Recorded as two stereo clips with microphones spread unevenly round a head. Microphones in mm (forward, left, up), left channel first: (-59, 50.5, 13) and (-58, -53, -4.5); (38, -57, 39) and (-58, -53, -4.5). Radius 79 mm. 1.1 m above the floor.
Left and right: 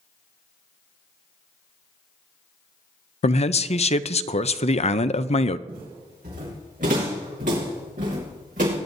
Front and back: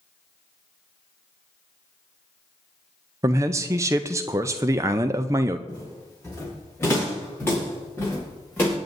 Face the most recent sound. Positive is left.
turn(degrees=-65)